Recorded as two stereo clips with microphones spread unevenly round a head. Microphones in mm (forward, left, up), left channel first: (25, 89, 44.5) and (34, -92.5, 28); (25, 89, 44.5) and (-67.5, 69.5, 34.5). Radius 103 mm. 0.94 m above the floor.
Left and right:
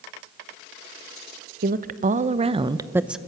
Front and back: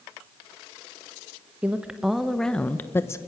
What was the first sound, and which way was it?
A woman speaking, 95° right.